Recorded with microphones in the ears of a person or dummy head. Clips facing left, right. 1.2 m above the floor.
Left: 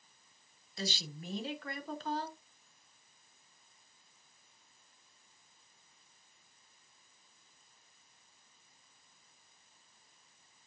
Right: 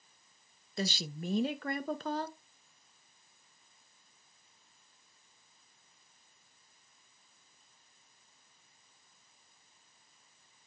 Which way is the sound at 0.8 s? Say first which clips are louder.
Right 5 dB; 50° right (ahead or behind).